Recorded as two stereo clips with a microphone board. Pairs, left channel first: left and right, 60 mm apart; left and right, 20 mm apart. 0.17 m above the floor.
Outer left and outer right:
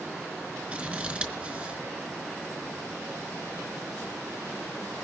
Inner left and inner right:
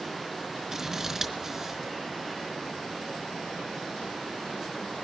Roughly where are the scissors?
Right.